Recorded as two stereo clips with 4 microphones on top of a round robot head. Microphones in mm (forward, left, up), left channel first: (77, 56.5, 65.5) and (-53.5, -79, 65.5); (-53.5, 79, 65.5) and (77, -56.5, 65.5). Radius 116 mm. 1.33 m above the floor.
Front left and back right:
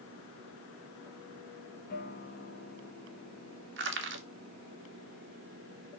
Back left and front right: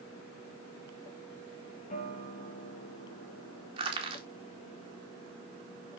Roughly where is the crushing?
Right.